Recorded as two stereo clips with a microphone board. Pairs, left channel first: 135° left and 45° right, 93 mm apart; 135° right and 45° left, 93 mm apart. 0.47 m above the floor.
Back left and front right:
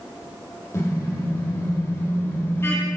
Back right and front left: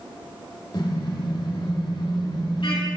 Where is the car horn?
170° right, 9.5 m; by 2.9 s 160° right, 9 m.